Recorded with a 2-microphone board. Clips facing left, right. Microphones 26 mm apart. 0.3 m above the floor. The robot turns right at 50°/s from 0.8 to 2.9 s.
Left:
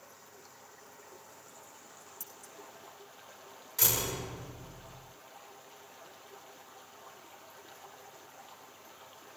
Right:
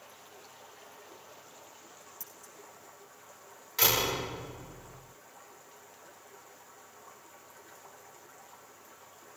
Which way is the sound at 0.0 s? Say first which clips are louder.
Right 2 dB; 65° right.